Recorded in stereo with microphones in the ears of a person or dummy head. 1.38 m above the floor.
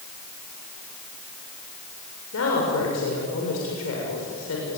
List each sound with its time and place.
2.3 s a woman speaking: 80° left, 6.5 m